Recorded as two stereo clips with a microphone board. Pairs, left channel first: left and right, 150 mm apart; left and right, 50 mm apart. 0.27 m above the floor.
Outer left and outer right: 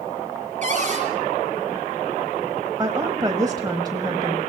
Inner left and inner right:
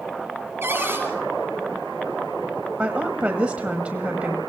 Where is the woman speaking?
25° right (ahead or behind), 1.1 m.